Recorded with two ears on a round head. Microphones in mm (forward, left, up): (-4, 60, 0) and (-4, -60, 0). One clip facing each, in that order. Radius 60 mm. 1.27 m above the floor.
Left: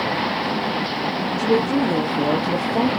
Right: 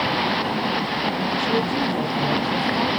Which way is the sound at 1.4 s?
80° left.